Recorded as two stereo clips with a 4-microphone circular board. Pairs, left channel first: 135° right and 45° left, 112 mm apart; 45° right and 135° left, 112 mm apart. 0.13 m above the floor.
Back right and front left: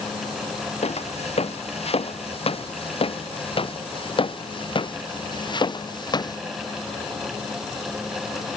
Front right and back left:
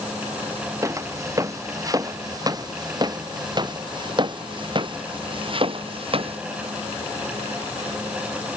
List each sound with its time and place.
0.8 s footsteps: 160° right; by 6.4 s 170° left